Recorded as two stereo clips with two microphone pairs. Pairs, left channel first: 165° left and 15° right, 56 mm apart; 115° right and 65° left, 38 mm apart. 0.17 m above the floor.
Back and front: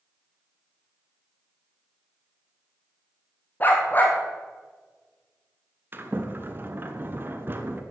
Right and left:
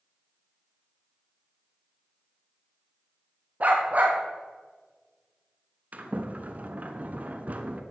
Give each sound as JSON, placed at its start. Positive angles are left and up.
{"t": 3.6, "sound": "a dog barking", "azimuth_deg": 110, "distance_m": 2.5}
{"t": 5.9, "sound": "a sliding door", "azimuth_deg": 25, "distance_m": 1.2}